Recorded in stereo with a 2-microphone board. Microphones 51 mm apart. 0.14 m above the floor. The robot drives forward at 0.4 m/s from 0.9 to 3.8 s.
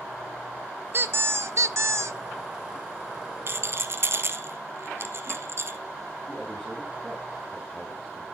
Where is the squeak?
50° right (ahead or behind), 0.6 m; by 2.2 s 65° right (ahead or behind), 0.5 m.